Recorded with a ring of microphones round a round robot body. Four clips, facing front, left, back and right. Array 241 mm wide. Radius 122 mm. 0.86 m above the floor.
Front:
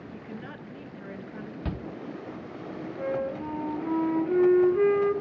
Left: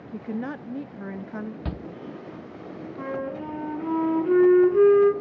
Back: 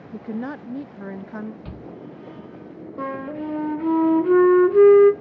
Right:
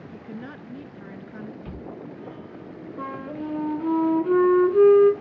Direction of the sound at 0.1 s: 145° left.